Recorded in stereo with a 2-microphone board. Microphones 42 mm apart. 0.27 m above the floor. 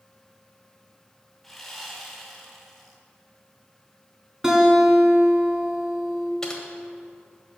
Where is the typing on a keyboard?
15° left (ahead or behind), 1.3 m.